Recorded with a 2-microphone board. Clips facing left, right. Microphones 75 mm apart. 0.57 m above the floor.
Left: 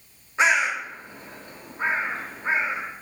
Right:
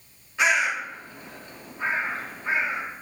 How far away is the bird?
About 0.7 m.